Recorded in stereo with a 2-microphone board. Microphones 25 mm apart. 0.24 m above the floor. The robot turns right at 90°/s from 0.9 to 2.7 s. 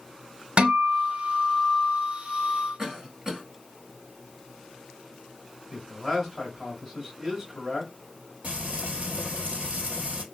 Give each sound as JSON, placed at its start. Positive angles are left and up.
{"t": 0.6, "sound": "a guitar", "azimuth_deg": -85, "distance_m": 0.8}
{"t": 2.8, "sound": "a cough", "side_deg": -25, "distance_m": 2.0}
{"t": 5.7, "sound": "a man speaking", "side_deg": -20, "distance_m": 1.7}
{"t": 8.4, "sound": "frying", "side_deg": -60, "distance_m": 1.7}